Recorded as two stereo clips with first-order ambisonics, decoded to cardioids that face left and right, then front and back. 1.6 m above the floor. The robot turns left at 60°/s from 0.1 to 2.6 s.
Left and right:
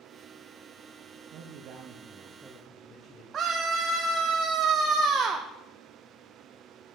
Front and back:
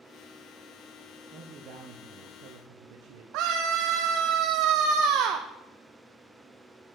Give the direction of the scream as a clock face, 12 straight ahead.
5 o'clock.